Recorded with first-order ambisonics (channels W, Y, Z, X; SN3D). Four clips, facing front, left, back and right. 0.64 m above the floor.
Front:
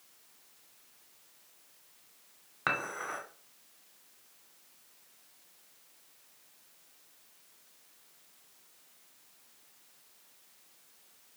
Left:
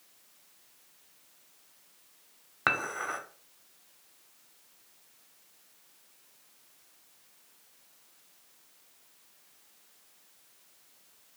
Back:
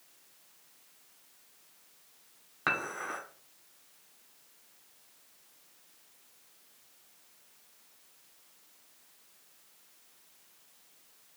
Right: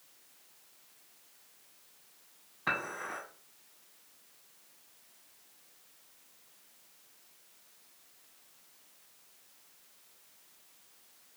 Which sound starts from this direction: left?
Dishes clattering, at 2.7 s.